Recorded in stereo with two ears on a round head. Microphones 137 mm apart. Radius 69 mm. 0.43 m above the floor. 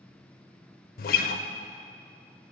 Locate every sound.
1.0 s a guitar: 60° left (ahead or behind), 0.5 m